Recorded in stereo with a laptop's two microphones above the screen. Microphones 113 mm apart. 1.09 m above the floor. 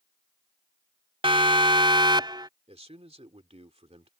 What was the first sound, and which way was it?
A siren, 50° right (ahead or behind).